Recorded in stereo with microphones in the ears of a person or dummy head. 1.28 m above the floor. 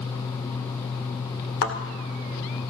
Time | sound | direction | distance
1.6 | a thud | 70° left (ahead or behind) | 2 m